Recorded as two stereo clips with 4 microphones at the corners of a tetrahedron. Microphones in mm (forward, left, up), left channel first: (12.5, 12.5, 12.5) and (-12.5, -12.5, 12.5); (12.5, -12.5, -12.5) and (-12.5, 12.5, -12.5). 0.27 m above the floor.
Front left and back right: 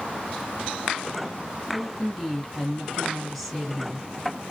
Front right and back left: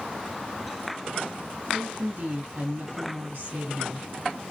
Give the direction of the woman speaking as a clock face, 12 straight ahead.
8 o'clock.